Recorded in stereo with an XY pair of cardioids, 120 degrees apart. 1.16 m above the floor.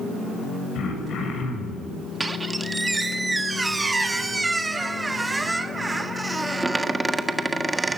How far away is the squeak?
About 1.5 m.